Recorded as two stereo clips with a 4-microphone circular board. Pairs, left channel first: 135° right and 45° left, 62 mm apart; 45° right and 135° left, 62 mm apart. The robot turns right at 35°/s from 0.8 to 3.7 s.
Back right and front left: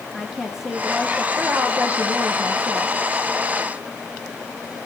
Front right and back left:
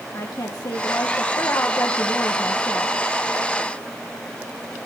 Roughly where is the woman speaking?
Ahead right.